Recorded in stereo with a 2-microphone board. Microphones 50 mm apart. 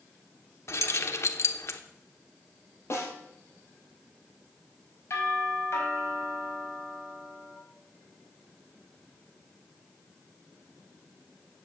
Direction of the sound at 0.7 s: 60° left (ahead or behind).